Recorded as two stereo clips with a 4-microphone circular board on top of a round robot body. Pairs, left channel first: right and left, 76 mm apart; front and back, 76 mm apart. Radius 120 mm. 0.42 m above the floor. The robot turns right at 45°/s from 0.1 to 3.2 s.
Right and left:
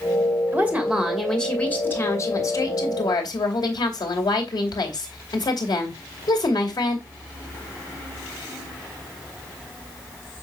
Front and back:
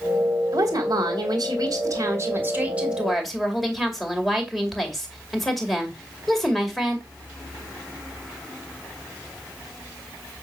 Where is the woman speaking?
150° left, 2.5 m; by 7.0 s 90° right, 2.5 m.